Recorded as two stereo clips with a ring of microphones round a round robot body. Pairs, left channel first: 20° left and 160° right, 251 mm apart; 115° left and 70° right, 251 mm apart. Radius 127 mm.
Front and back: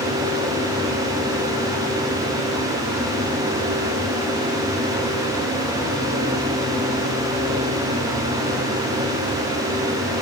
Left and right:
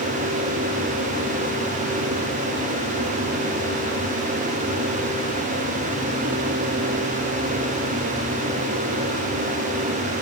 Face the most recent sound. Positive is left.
No sound to turn to.